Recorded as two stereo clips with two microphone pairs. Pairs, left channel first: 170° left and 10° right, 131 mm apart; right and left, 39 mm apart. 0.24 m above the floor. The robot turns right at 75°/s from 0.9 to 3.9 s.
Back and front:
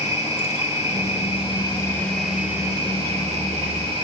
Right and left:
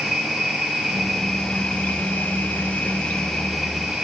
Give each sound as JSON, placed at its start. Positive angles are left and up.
{"t": 0.0, "sound": "an insect", "azimuth_deg": 160, "distance_m": 3.5}